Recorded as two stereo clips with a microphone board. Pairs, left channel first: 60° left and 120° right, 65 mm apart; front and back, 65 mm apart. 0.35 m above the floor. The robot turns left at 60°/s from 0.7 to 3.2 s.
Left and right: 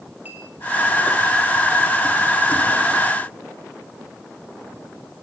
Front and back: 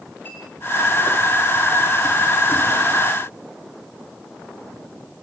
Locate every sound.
0.2 s a clink: 60° right, 7.5 m